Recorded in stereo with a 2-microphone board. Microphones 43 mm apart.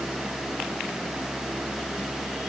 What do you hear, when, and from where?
Only background noise.